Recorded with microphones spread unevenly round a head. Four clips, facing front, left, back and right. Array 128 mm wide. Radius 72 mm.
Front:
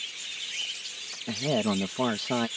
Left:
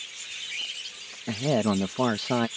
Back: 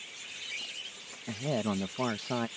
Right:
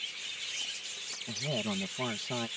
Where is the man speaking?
55° left.